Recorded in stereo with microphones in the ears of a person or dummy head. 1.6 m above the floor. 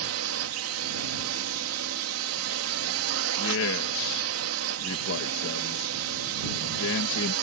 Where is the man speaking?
70° left (ahead or behind).